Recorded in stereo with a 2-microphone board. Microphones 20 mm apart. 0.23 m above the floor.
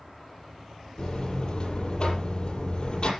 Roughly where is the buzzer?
Left.